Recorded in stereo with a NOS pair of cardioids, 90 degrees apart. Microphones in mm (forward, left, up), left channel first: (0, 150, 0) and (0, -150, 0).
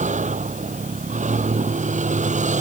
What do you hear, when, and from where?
0.0 s a vehicle: 25° right